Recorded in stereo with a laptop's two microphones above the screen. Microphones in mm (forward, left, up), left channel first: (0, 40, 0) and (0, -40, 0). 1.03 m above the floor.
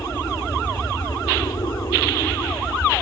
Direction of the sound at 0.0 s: 60° left (ahead or behind).